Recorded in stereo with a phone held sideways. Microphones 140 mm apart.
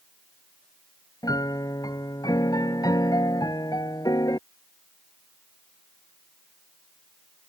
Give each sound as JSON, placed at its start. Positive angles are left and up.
{"t": 1.2, "sound": "a piano", "side_deg": 25}